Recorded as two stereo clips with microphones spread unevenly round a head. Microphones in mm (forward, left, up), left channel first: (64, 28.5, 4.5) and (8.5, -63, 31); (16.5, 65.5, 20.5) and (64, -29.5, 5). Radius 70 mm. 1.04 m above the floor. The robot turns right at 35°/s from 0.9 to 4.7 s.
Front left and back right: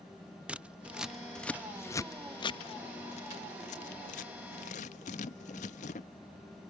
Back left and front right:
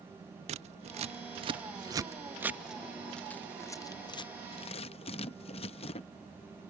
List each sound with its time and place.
0.5 s scissors: 45° right; by 6.1 s 90° left